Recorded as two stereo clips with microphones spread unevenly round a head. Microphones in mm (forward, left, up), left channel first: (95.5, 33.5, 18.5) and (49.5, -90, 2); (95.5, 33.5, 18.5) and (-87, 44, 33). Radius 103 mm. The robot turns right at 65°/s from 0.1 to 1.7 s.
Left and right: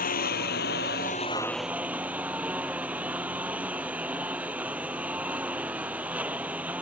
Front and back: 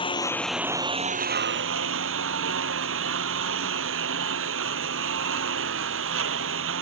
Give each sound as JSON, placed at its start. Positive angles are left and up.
{"t": 0.0, "sound": "a lawn mower", "azimuth_deg": 60}